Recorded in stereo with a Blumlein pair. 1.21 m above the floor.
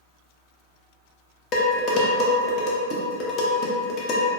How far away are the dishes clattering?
About 0.5 m.